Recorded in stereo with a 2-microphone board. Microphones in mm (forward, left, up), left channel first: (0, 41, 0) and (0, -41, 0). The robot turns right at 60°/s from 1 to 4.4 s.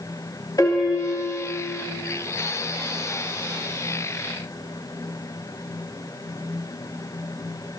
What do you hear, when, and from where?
0.6 s a piano: 135° left, 1.3 m; by 1.8 s 175° right, 1.3 m